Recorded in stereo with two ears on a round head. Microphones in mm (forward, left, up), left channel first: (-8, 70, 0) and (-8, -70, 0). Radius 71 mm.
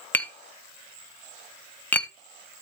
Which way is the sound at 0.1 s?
10° left (ahead or behind).